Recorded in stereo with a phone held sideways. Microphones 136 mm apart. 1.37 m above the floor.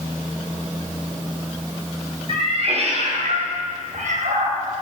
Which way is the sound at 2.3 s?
45° right (ahead or behind).